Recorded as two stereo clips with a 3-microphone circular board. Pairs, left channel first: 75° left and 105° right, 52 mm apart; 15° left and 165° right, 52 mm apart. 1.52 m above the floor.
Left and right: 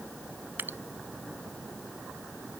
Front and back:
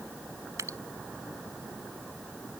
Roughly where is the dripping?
Behind right.